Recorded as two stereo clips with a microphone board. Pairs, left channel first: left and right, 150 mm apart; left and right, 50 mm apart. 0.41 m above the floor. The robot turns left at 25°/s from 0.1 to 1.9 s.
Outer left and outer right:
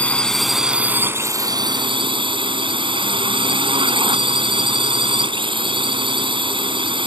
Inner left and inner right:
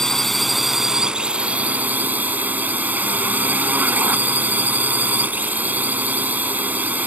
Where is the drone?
10° left; by 7.1 s 35° right.